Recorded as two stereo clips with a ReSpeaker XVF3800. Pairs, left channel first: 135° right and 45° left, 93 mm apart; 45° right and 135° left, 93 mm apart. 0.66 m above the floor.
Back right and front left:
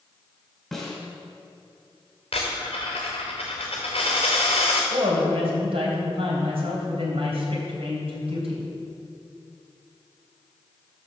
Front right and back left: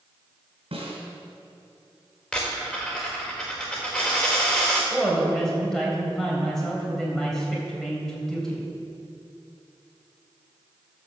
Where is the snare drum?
140° left, 3 m.